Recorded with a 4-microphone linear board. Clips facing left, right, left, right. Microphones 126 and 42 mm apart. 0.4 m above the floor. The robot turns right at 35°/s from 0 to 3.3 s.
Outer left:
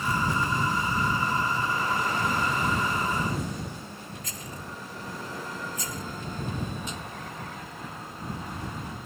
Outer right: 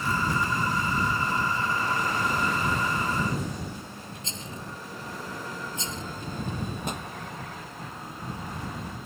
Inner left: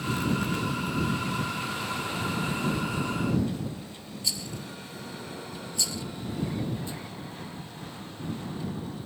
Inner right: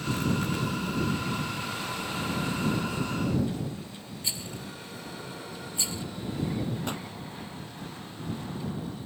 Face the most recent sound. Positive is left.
turn(degrees=-55)  # may be behind; listen again after turning